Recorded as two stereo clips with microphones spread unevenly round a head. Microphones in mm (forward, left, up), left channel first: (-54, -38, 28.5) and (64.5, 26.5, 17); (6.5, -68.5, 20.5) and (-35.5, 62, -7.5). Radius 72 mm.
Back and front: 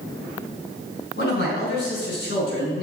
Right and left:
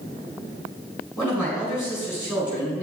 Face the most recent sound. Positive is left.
turn(degrees=-145)